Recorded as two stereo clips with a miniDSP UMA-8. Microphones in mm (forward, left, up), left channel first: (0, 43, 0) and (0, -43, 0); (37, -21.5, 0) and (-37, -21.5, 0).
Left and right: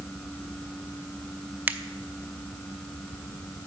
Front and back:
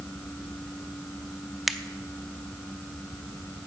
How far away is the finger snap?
About 0.5 m.